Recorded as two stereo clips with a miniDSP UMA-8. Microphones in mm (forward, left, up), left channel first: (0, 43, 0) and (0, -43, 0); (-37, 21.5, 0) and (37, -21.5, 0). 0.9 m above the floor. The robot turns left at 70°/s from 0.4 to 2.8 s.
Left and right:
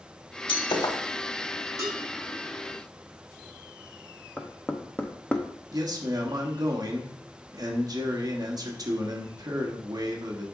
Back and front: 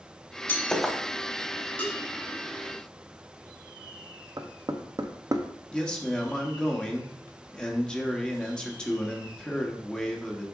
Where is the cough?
No cough in this recording.